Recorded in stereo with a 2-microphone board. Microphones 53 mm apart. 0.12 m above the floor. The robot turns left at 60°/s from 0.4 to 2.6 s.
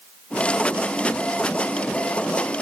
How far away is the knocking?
No knocking in this recording.